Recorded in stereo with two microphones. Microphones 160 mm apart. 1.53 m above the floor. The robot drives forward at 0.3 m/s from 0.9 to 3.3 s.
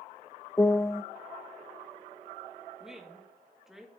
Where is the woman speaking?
5° right (ahead or behind), 2.0 m.